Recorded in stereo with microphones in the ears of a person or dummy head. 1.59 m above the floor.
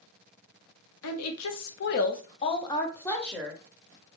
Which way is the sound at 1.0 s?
85° left.